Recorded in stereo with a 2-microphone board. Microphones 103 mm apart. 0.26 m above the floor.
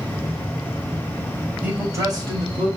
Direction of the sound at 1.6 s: 15° right (ahead or behind).